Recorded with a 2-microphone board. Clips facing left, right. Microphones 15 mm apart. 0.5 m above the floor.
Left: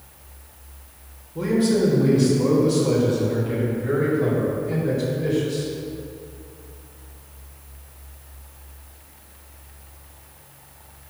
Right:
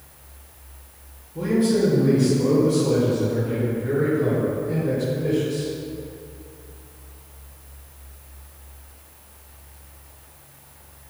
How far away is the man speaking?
About 2 m.